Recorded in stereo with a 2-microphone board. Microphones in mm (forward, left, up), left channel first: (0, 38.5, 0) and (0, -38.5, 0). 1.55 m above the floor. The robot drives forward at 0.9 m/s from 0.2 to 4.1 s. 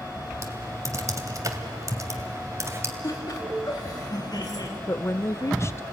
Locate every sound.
0.4 s typing on a keyboard: 40° right (ahead or behind), 2 m; by 2.9 s 35° right (ahead or behind), 2 m
3.0 s laughter: 55° left (ahead or behind), 4 m; by 4.7 s 65° left (ahead or behind), 3.5 m
4.9 s a woman speaking: 40° left (ahead or behind), 0.8 m